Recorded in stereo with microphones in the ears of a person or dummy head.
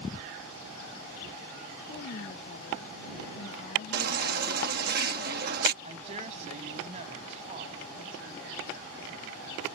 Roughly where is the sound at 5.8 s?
Right.